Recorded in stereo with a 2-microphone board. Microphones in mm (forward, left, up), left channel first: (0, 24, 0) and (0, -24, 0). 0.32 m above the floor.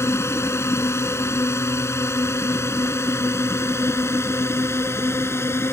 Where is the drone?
70° left (ahead or behind); by 5.7 s 60° left (ahead or behind).